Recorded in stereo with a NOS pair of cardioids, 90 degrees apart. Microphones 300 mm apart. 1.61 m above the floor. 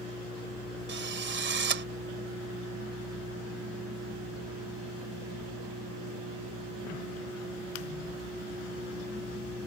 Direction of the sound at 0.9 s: 40° right.